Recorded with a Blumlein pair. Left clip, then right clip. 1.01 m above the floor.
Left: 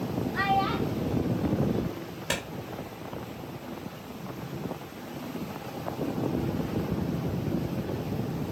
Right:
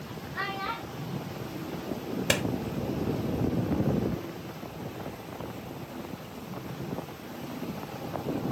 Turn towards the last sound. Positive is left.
turn(degrees=-65)